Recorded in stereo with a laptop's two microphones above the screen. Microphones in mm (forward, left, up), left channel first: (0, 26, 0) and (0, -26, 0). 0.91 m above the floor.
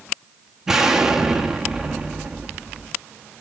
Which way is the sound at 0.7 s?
10° right (ahead or behind).